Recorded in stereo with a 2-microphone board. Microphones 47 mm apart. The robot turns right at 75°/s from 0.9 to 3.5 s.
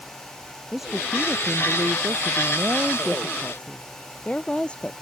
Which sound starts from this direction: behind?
A woman speaking, at 0.7 s.